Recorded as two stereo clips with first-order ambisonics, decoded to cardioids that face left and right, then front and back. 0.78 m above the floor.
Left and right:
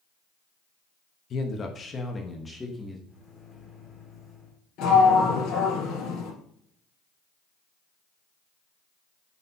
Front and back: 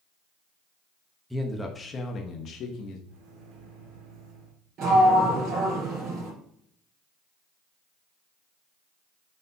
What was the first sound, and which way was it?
A man speaking, 95° left.